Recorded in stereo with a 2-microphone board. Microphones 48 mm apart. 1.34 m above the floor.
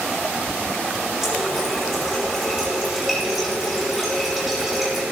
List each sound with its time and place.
1.2 s a running tap: 5° right (ahead or behind), 4 m